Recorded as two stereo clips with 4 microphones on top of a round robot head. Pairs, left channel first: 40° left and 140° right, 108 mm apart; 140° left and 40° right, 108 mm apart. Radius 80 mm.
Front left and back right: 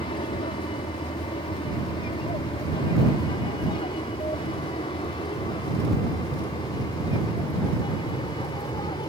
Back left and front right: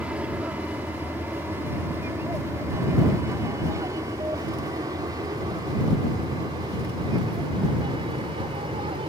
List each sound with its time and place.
0.0 s an aircraft: 35° left; by 9.1 s 5° right